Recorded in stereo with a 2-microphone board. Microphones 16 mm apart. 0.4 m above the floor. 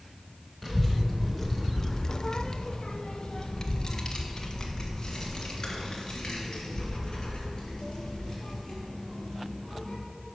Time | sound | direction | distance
0.6 | a child speaking | 20° right (ahead or behind) | 1.0 m